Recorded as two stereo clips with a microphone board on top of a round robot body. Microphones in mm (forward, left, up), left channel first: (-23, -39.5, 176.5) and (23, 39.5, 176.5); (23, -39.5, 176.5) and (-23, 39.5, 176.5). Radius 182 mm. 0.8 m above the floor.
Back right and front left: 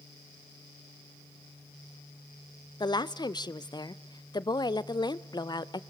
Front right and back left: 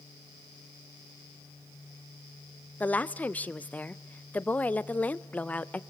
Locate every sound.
2.8 s a woman speaking: 130° right, 0.8 m